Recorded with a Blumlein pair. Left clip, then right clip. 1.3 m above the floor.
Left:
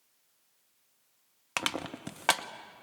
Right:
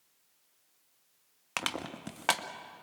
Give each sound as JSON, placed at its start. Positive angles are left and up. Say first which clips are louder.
{"t": 1.6, "sound": "crushing", "louder": "left 2 dB", "azimuth_deg": 5, "distance_m": 1.0}